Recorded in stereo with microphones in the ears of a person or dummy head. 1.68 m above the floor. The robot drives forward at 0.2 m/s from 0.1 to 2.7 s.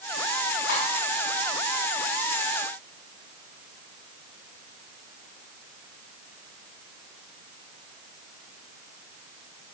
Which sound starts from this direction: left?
Cutlery clinking, at 0.7 s.